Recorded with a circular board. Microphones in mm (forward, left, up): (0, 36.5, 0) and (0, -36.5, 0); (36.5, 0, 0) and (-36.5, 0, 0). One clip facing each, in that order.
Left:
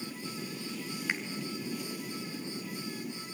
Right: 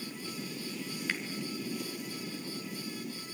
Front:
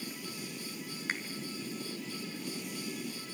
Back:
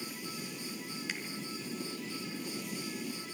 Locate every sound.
1.1 s a finger snap: 25° left, 1.9 m